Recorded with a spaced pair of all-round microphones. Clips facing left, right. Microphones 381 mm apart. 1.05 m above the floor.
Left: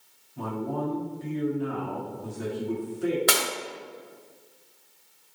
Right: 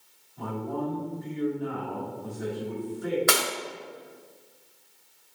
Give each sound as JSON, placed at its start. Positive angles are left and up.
{"t": 0.4, "sound": "a man speaking", "side_deg": 80, "distance_m": 2.0}
{"t": 3.3, "sound": "breaking glass", "side_deg": 50, "distance_m": 1.6}